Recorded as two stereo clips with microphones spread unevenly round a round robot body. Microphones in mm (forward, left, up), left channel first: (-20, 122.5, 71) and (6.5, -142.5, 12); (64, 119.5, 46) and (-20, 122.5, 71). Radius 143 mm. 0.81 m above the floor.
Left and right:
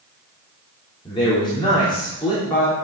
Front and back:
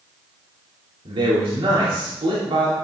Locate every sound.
1.1 s a man speaking: 175° left, 3 m